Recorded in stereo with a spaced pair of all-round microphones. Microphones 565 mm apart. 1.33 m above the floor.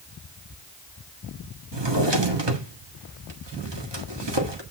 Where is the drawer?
45° right (ahead or behind), 1.6 m.